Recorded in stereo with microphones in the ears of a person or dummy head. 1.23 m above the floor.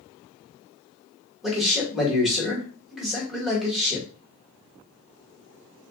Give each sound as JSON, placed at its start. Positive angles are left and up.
{"t": 1.4, "sound": "a man speaking", "side_deg": -5, "distance_m": 1.9}